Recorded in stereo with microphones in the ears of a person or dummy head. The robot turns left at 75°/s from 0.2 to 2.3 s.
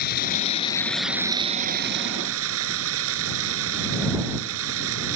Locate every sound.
0.0 s running water: 65° left; by 5.2 s 90° right